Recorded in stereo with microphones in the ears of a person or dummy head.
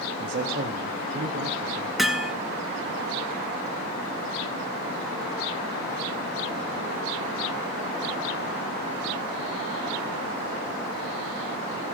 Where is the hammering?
Centre (ahead or behind), 1.3 m.